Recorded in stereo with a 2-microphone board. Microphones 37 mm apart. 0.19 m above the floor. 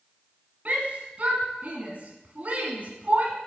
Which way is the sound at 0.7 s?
45° right (ahead or behind).